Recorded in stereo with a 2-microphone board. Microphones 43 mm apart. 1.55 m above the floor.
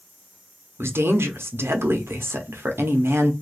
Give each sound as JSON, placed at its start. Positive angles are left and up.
{"t": 0.8, "sound": "a woman speaking", "side_deg": -75, "distance_m": 0.6}